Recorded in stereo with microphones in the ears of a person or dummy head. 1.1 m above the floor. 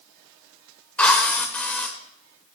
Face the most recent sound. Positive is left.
turn(degrees=5)  # may be behind; listen again after turning